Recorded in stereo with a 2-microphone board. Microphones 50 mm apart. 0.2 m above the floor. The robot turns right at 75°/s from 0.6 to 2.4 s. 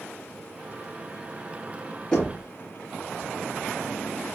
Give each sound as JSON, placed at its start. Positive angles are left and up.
{"t": 2.1, "sound": "knocking", "side_deg": 15, "distance_m": 1.8}